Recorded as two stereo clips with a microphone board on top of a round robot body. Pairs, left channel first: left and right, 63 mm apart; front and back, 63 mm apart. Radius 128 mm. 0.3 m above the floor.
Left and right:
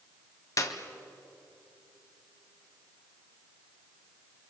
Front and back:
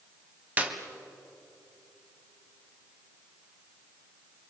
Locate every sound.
0.6 s a clap: 115° left, 2 m